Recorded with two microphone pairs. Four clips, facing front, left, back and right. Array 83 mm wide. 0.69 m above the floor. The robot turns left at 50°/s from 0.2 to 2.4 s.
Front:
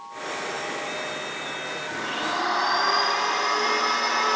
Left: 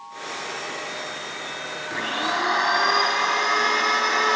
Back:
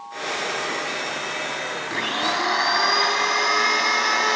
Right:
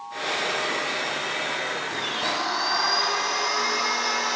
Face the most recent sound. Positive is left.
turn(degrees=125)